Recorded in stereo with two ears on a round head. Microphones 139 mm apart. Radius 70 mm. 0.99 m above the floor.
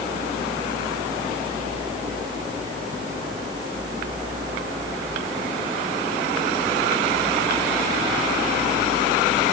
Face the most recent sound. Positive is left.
No sound to turn to.